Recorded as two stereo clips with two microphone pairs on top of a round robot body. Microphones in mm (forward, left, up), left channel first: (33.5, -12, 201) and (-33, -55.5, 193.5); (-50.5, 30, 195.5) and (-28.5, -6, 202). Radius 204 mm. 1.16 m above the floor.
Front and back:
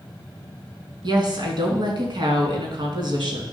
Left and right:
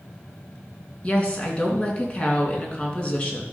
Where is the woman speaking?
170° right, 3 m.